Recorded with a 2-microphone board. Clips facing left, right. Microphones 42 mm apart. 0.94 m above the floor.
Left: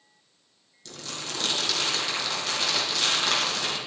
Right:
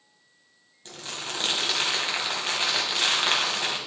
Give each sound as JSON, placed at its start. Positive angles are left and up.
{"t": 0.8, "sound": "crumpling", "side_deg": -30, "distance_m": 2.0}